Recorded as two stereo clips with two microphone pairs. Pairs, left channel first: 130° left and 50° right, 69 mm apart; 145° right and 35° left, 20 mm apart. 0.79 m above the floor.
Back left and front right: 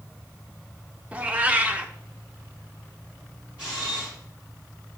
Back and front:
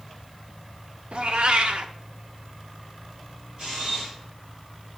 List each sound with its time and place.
1.1 s a cat meowing: 15° left, 0.5 m
3.6 s a camera shutter: 15° left, 3.5 m